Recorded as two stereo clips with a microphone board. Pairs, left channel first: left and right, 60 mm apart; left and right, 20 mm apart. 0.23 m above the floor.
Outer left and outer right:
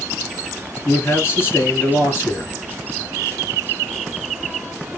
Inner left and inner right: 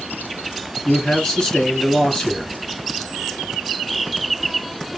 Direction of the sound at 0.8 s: 35° left (ahead or behind).